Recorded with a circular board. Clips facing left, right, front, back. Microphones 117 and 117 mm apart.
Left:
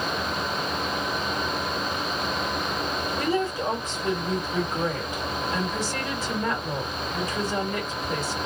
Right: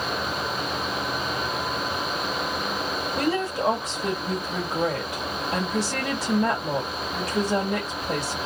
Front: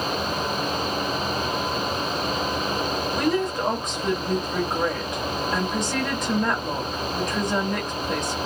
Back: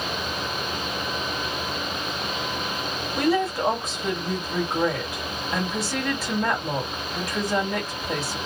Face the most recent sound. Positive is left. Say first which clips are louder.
# right 1 dB, back 3 dB
turn(degrees=-95)